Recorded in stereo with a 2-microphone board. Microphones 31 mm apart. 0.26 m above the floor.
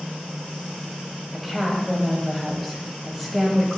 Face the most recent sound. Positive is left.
turn(degrees=0)  # may be behind; listen again after turning